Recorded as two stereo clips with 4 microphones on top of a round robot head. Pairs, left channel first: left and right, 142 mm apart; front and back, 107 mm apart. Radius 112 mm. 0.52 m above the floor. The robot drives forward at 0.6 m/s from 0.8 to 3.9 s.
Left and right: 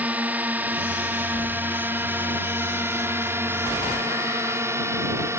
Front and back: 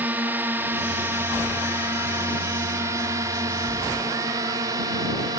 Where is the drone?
150° right.